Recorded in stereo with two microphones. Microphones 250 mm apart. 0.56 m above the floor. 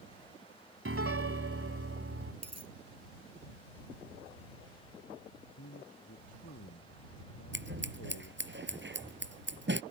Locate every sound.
0.8 s a piano: 60° right (ahead or behind)
2.4 s a dropped coin: 80° right
5.4 s a man speaking: 70° left (ahead or behind)
7.5 s scissors: 45° right (ahead or behind)